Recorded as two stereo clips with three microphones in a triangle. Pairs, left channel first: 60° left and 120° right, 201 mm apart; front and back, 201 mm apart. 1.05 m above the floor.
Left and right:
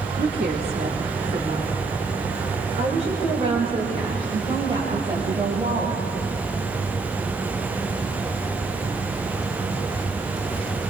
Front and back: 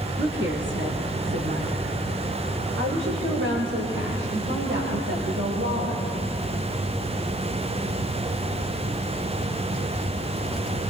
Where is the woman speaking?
150° right, 2 m; by 6.0 s 170° left, 5 m.